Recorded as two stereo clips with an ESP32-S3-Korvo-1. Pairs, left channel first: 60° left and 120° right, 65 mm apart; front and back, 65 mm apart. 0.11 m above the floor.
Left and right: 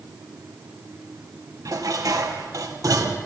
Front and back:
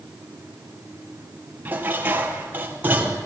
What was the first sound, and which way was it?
Dishes clattering, 120° right.